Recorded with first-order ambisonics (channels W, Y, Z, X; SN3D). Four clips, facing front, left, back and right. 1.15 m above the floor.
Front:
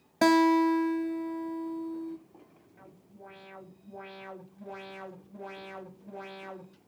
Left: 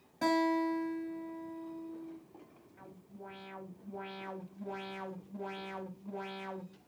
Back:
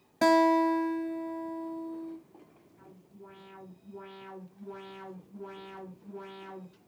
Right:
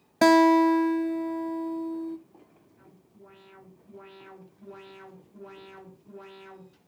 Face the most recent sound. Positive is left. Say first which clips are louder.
# left 5 dB, front 1 dB
turn(degrees=50)